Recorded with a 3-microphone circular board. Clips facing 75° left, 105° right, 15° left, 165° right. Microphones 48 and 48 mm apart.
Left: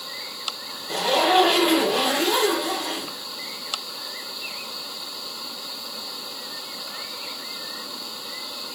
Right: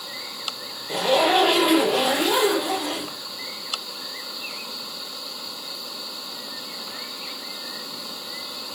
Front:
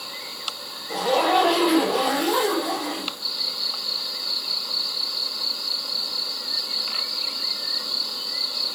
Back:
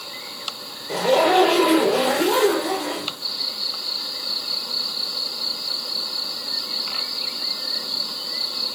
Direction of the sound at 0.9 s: 165° left.